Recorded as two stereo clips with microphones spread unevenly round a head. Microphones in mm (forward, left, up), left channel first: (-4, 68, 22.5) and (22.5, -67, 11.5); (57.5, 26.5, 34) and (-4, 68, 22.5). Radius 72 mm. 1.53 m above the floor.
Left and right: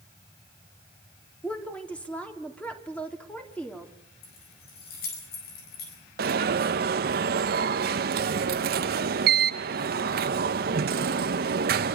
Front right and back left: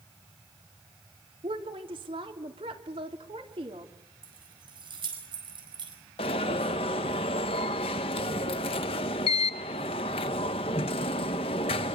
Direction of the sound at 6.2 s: 55° right.